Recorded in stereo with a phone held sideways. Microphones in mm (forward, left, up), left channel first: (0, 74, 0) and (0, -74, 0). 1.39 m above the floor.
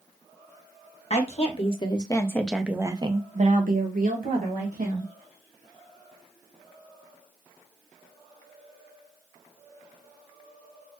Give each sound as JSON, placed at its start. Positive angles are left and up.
{"t": 1.1, "sound": "a woman speaking", "side_deg": 45, "distance_m": 1.3}